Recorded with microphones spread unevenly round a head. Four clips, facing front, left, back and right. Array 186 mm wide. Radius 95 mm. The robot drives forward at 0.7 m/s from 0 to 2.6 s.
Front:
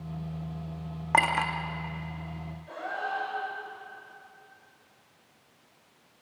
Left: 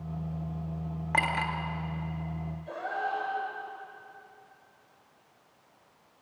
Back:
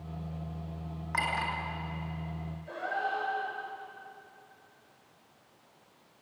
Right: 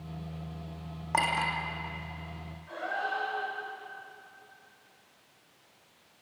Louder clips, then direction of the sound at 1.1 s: Right 1 dB, front 7 dB; 10° right.